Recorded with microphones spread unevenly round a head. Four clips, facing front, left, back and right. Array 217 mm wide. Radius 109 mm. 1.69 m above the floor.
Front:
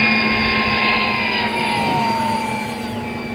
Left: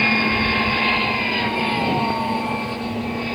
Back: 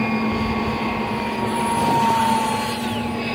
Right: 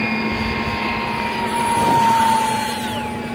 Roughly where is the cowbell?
No cowbell in this recording.